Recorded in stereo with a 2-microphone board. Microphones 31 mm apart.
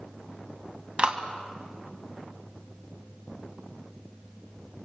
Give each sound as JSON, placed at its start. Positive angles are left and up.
{"t": 1.0, "sound": "a clap", "side_deg": -35, "distance_m": 1.9}